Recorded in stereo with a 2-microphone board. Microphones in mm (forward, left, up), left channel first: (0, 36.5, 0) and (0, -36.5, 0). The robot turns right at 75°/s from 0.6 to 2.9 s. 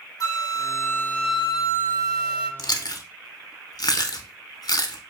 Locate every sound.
0.2 s a flute: 120° left, 0.9 m; by 2.5 s 95° right, 0.9 m
2.6 s chewing: 75° left (ahead or behind), 0.6 m; by 5.1 s 65° left (ahead or behind), 0.6 m